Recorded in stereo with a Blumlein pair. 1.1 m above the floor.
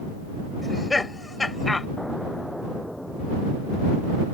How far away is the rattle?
I don't hear a rattle.